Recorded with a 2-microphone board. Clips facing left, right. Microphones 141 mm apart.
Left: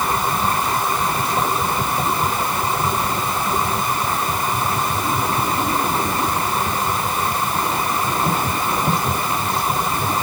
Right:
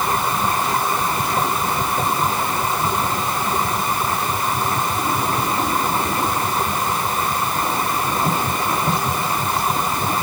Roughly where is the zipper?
No zipper in this recording.